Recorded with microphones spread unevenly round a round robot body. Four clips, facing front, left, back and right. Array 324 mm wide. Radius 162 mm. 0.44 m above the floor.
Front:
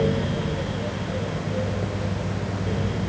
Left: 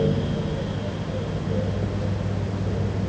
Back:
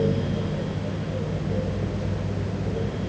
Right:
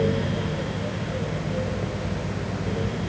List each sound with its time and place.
Only background noise.